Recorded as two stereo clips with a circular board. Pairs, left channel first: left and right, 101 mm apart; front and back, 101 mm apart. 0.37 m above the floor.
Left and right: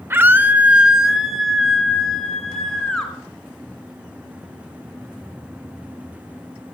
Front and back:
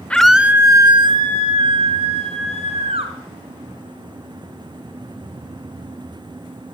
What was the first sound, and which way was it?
A scream, 60° right.